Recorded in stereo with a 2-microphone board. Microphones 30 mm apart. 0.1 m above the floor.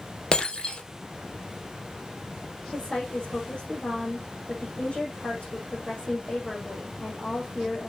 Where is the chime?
No chime in this recording.